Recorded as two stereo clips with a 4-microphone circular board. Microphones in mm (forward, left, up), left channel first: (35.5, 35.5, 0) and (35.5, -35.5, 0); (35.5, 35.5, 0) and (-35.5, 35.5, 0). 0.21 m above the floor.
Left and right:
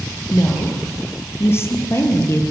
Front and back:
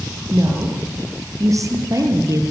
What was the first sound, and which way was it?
A woman speaking, 140° left.